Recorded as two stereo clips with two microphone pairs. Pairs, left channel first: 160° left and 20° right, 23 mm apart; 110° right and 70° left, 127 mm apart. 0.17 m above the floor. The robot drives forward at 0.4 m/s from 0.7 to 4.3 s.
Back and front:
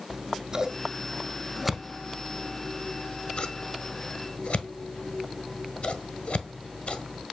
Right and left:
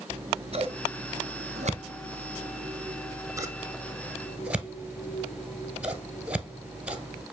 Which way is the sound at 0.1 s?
40° left.